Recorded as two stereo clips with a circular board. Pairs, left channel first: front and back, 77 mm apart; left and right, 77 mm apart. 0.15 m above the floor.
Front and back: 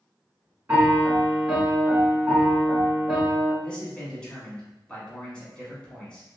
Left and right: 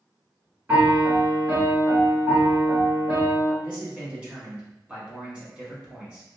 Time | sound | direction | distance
0.7 | a piano | 130° right | 1.5 m
3.6 | a man speaking | 55° right | 1.1 m